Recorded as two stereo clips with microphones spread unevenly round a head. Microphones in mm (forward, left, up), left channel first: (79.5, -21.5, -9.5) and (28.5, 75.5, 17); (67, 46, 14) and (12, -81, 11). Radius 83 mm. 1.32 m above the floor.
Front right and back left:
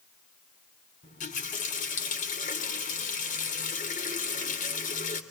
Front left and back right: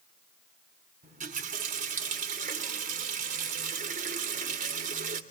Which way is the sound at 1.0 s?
85° right.